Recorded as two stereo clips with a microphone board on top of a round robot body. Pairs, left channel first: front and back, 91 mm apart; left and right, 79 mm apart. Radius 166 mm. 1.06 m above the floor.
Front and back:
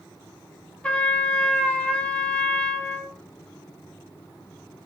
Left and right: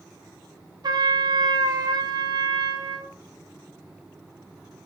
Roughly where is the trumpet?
Right.